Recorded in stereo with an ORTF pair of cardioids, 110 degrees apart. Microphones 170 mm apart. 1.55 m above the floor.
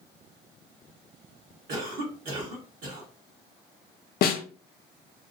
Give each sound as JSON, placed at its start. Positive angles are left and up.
{"t": 1.7, "sound": "a cough", "azimuth_deg": -60, "distance_m": 1.2}
{"t": 4.2, "sound": "a snare drum", "azimuth_deg": 65, "distance_m": 0.5}